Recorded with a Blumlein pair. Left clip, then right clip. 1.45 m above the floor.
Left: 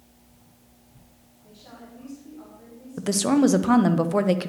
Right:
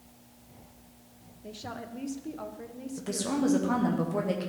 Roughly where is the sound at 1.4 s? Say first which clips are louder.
Right 7 dB; ahead right.